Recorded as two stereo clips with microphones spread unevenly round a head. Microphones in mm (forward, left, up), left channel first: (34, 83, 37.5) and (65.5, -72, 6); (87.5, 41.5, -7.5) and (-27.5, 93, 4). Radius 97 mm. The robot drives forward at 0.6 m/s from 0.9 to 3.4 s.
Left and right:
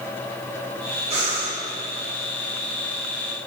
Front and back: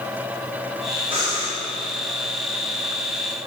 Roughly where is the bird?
I don't hear a bird.